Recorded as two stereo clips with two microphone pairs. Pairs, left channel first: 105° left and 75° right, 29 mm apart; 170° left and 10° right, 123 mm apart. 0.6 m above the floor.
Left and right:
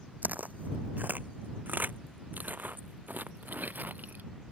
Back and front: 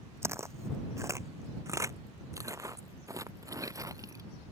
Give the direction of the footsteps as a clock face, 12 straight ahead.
2 o'clock.